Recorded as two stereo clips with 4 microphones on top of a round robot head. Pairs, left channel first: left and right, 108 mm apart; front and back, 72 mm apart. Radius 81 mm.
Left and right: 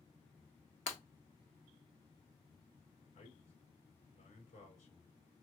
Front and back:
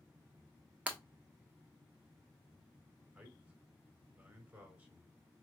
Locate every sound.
0.9 s breaking glass: 110° left, 1.0 m
3.1 s a man speaking: 115° left, 2.5 m